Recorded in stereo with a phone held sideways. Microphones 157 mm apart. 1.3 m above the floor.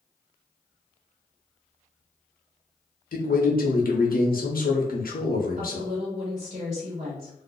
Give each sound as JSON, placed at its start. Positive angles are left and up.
{"t": 3.1, "sound": "a man speaking", "side_deg": 70, "distance_m": 0.7}
{"t": 5.6, "sound": "a woman speaking", "side_deg": -50, "distance_m": 1.1}